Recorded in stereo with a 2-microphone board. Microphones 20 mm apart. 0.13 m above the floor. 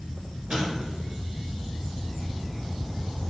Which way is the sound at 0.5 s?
45° right (ahead or behind).